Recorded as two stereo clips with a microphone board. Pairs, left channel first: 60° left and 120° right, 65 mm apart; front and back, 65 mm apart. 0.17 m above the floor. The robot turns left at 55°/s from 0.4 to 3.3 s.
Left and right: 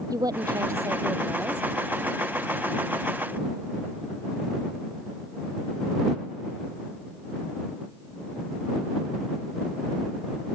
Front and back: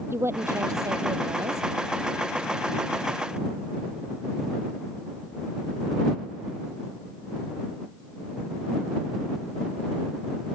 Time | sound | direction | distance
0.1 | a woman speaking | 135° right | ?